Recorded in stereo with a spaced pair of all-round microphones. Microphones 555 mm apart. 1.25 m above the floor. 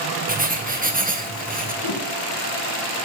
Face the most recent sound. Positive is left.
turn(degrees=70)  # may be behind; listen again after turning